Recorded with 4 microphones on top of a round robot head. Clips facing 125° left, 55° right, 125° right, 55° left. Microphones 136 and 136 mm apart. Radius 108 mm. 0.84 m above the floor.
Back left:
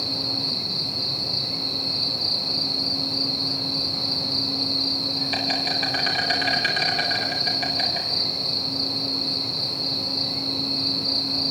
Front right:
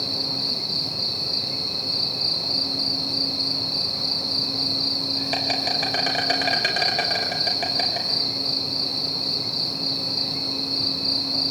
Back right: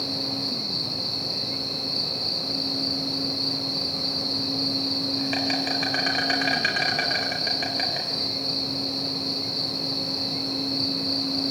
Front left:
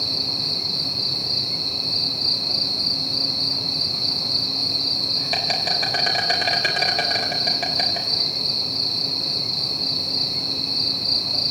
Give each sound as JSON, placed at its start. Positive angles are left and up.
{"t": 0.0, "sound": "an insect", "azimuth_deg": -5, "distance_m": 5.0}